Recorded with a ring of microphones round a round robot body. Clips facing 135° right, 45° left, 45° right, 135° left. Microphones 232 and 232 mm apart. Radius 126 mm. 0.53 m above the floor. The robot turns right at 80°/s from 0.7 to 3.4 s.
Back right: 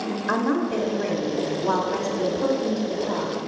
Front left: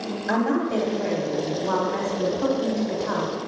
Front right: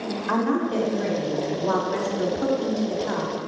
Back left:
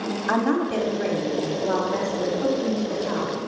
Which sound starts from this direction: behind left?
A woman speaking, at 0.3 s.